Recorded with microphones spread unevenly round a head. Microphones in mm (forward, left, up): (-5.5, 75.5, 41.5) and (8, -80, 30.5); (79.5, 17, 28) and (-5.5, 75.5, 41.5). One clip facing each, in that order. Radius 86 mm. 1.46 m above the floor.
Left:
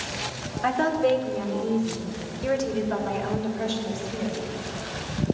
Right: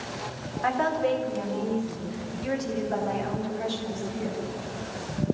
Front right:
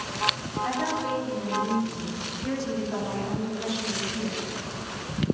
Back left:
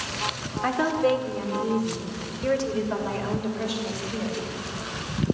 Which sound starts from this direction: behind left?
A woman speaking, at 0.6 s.